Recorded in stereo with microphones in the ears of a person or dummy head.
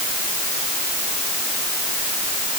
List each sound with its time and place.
Only background noise.